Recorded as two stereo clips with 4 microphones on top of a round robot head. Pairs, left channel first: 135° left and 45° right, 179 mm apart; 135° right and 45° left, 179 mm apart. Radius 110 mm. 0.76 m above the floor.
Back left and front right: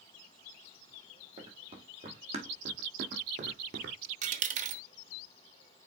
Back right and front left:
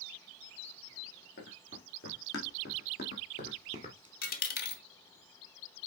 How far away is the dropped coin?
About 1.1 m.